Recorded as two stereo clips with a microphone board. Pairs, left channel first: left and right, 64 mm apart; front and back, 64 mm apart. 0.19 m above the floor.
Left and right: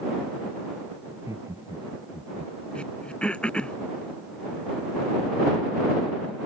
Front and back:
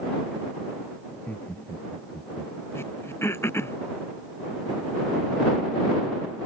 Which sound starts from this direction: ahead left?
Throat clearing, at 2.8 s.